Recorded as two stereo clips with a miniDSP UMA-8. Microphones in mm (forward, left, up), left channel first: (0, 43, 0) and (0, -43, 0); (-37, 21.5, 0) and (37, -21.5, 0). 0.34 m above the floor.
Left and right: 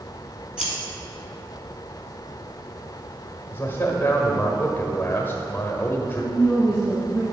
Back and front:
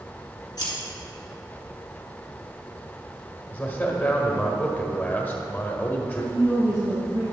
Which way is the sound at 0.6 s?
170° right.